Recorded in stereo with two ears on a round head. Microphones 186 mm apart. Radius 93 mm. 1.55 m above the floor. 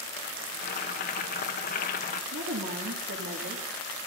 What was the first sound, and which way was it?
Boiling, 45° left (ahead or behind).